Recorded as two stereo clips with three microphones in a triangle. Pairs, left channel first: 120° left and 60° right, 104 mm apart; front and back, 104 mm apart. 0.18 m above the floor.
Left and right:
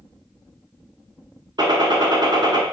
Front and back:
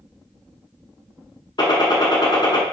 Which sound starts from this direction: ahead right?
A gunshot, at 1.6 s.